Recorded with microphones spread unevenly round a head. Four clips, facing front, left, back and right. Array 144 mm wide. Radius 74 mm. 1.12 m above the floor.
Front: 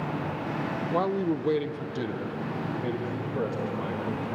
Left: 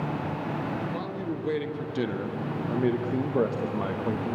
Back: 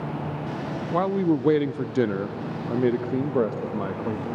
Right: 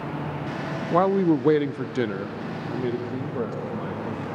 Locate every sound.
0.9 s a man speaking: 85° right, 0.7 m; by 4.3 s 155° left, 1.8 m